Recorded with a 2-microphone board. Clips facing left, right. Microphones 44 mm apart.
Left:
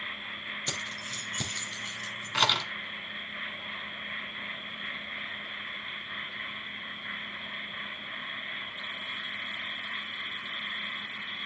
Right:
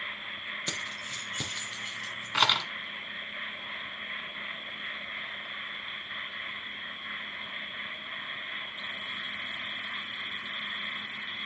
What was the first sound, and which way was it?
Keys jangling, 15° right (ahead or behind).